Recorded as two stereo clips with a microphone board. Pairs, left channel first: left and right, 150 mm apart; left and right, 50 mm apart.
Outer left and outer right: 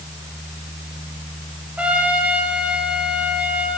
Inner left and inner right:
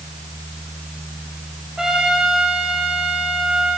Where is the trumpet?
10° right (ahead or behind), 6 m.